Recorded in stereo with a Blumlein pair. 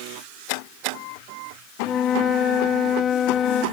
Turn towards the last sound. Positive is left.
turn(degrees=20)